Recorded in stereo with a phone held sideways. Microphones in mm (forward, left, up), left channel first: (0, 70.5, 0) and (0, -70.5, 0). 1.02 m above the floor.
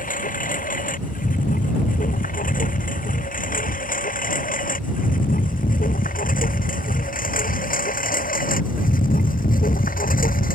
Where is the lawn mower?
75° left (ahead or behind); by 10.6 s 85° left.